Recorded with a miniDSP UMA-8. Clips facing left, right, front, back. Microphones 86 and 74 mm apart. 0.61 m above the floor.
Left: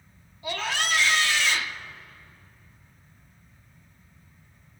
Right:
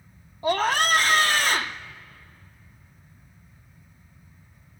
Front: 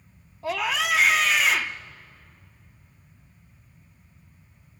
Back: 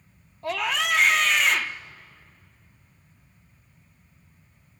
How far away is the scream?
About 0.8 m.